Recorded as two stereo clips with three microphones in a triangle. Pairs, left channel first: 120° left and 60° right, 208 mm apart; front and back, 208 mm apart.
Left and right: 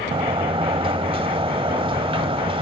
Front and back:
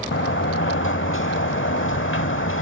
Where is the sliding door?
5° left, 0.8 m.